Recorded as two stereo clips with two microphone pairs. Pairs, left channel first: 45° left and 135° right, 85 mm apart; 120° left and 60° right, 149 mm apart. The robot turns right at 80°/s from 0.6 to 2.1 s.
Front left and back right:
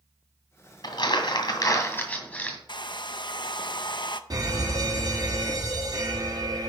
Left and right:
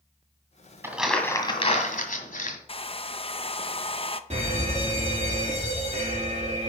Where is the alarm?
100° right, 3.5 m.